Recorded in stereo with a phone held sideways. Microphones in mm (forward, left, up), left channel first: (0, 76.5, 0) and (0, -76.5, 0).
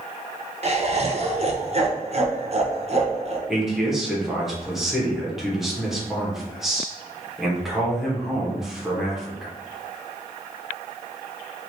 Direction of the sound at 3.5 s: 5° right (ahead or behind).